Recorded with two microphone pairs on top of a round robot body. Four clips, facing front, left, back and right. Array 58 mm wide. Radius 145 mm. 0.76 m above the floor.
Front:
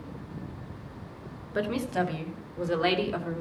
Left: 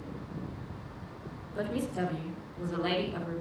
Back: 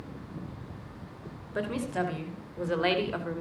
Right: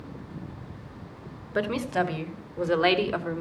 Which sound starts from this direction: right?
A woman speaking, at 1.6 s.